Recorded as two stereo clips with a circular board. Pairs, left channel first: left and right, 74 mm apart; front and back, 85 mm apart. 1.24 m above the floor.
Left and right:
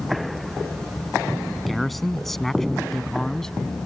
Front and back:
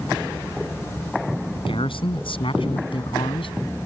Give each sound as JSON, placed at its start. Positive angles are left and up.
{"t": 1.6, "sound": "a man speaking", "azimuth_deg": 0}